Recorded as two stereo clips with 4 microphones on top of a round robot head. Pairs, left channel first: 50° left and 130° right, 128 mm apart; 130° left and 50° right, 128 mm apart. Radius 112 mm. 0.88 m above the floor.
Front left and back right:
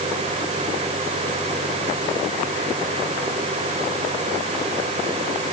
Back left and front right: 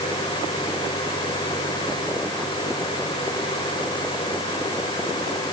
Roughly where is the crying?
No crying in this recording.